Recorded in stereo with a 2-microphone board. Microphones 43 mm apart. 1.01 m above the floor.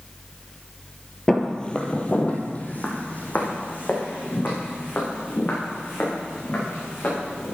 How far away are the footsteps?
About 1.2 m.